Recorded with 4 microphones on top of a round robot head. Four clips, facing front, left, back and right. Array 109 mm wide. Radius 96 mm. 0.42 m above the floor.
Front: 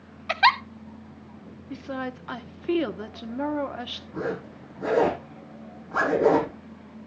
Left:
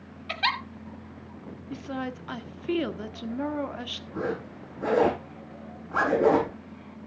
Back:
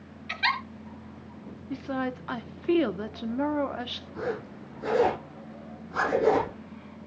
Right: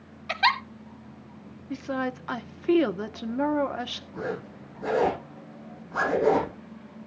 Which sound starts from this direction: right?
A woman speaking, at 1.7 s.